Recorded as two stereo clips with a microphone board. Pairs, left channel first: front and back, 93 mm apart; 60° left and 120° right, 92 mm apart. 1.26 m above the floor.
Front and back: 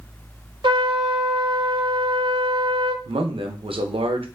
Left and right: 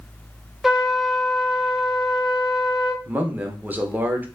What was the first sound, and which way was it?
A trumpet, 155° left.